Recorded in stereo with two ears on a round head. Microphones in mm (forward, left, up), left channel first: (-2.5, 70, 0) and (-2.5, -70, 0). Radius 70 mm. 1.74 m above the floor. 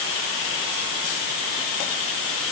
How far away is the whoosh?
No whoosh in this recording.